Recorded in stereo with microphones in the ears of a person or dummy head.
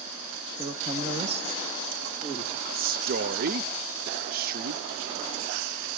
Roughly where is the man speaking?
Right.